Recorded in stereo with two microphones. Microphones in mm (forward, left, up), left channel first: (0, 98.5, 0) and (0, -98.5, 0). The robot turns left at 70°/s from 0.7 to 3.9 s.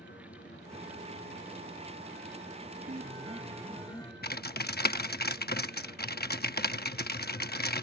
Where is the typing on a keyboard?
55° left (ahead or behind).